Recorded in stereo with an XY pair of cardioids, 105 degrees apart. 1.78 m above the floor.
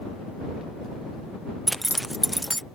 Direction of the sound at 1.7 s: 5° right.